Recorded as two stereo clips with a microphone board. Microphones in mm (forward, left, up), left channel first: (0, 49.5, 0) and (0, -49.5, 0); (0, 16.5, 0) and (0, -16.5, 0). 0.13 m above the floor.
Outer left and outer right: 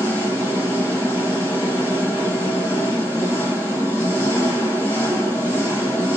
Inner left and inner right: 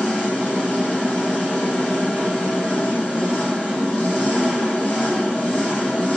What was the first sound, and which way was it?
An engine running, 30° left (ahead or behind).